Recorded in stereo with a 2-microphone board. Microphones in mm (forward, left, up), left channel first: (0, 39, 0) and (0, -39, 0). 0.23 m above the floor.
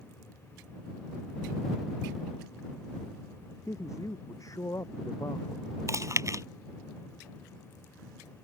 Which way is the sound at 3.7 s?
45° left (ahead or behind).